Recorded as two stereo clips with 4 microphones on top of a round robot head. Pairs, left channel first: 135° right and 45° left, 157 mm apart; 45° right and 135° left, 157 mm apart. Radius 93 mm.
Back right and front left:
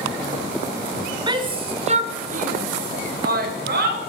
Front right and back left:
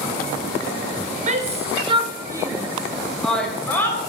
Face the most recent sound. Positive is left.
turn(degrees=30)